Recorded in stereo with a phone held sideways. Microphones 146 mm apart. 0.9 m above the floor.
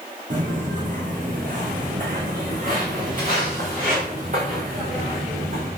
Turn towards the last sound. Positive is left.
turn(degrees=-55)  # may be behind; listen again after turning